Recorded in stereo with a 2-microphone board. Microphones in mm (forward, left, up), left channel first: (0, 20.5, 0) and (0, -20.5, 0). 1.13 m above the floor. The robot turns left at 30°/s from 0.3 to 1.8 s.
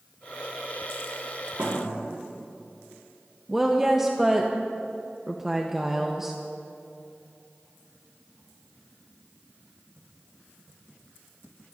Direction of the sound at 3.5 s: 10° right (ahead or behind).